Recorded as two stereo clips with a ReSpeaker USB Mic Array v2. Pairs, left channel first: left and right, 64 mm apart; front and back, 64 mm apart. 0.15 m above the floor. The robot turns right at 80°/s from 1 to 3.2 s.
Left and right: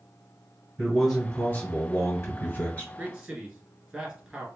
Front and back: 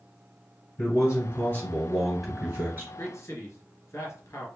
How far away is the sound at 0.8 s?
About 1.9 m.